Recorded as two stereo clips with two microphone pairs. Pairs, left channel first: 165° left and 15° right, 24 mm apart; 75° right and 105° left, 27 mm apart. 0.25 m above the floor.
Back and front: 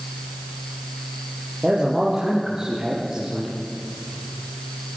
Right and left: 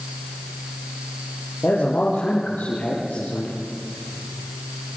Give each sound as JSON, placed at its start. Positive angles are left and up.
{"t": 1.6, "sound": "a man speaking", "azimuth_deg": -75, "distance_m": 7.5}